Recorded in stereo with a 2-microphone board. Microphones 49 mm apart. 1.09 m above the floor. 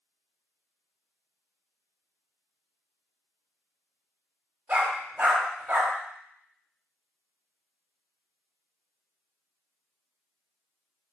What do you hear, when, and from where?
4.7 s a dog barking: 35° right (ahead or behind), 1.0 m